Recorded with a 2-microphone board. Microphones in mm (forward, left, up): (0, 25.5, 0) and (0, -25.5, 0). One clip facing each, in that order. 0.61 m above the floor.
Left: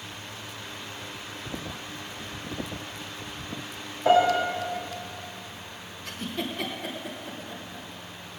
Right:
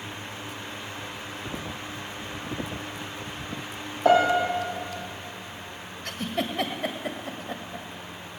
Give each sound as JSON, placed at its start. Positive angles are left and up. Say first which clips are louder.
{"t": 4.0, "sound": "a piano", "louder": "right 1 dB", "side_deg": -60, "distance_m": 5.0}
{"t": 6.0, "sound": "a giggle", "louder": "right 3 dB", "side_deg": -70, "distance_m": 1.5}